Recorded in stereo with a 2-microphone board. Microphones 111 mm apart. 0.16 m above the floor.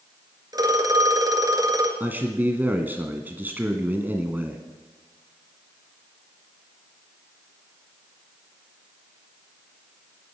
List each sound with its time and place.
0.5 s a phone ringing: 35° right (ahead or behind), 1.9 m
2.0 s a man speaking: 15° right (ahead or behind), 1.4 m